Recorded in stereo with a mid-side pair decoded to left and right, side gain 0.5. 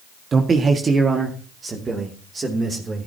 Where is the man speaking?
35° right, 1.7 m; by 3.1 s 30° right, 3.5 m.